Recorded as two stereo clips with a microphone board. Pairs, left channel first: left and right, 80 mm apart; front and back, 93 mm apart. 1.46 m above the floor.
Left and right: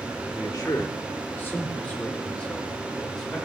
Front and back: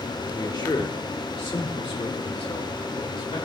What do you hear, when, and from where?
0.3 s a man speaking: 50° left, 1.2 m; by 3.5 s 5° left, 2.5 m